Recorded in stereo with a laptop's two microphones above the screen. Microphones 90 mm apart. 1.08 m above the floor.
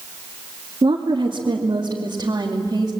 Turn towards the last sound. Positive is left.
turn(degrees=-40)  # may be behind; listen again after turning